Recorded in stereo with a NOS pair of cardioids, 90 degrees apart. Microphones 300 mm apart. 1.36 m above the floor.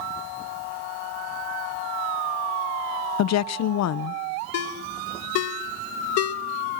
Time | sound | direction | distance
3.2 | a woman speaking | 65° left | 0.8 m
4.5 | a ringtone | 60° left | 1.2 m